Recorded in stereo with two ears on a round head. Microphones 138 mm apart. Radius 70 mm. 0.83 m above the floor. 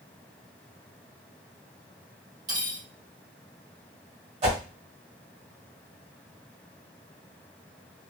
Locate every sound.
2.5 s cutlery clinking: 25° right (ahead or behind), 3 m
4.4 s a whoosh: 45° right (ahead or behind), 1.4 m